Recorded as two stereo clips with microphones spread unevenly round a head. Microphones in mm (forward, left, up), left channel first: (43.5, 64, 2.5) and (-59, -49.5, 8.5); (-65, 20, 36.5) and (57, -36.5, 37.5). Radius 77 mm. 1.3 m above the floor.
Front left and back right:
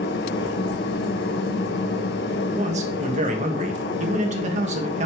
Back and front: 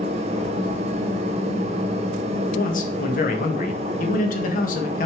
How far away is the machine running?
About 1.0 m.